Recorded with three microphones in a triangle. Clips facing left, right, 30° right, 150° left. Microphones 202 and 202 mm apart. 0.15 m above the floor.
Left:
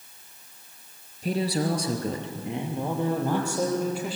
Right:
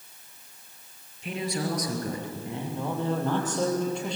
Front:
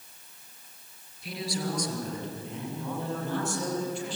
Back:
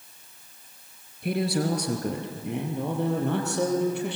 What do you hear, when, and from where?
1.2 s a man speaking: 135° left, 3 m; by 4.2 s 175° left, 5.5 m